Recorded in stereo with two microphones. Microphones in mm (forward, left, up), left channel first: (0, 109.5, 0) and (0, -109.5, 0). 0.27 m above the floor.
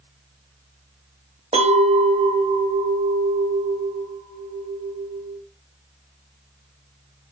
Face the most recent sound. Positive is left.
turn(degrees=-30)  # may be behind; listen again after turning